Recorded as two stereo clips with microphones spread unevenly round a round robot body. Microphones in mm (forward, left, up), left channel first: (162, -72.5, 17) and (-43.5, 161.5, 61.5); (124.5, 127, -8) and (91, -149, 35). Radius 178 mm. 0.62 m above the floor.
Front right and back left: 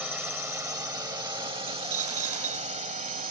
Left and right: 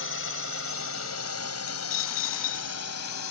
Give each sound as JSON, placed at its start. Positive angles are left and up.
{"t": 0.0, "sound": "a drone", "azimuth_deg": 45}
{"t": 1.7, "sound": "a dropped coin", "azimuth_deg": 105}